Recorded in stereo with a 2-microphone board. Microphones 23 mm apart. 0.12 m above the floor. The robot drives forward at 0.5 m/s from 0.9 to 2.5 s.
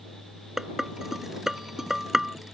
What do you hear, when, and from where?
0.6 s dishes clattering: 20° right (ahead or behind)